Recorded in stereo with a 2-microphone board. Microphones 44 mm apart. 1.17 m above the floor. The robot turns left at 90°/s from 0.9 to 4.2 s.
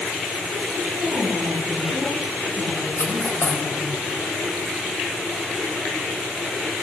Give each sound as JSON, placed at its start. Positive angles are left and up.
{"t": 0.9, "sound": "a woman speaking", "azimuth_deg": -70, "distance_m": 8.0}
{"t": 3.0, "sound": "cutlery clinking", "side_deg": 75, "distance_m": 4.5}